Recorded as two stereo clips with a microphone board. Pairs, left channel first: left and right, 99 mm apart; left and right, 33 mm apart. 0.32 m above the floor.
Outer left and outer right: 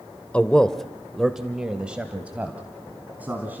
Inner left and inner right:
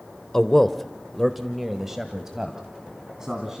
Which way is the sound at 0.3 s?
15° left (ahead or behind).